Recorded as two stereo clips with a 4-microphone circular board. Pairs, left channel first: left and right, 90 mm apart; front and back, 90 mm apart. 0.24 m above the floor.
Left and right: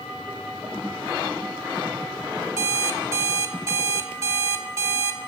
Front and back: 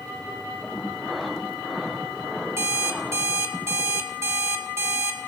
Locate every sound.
2.6 s an alarm clock: 130° right, 0.9 m